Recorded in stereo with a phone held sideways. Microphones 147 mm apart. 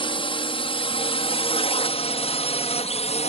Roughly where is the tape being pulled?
No tape being pulled in this recording.